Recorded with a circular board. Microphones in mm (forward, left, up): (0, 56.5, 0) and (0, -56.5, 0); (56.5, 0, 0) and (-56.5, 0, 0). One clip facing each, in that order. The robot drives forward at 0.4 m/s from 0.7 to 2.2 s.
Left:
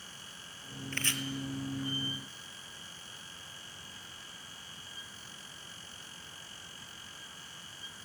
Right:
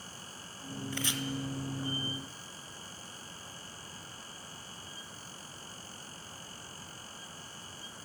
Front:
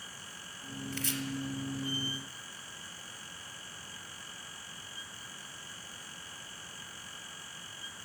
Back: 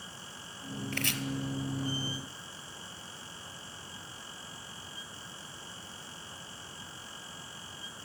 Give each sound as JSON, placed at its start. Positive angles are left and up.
{"t": 0.9, "sound": "chopping", "azimuth_deg": -165, "distance_m": 0.7}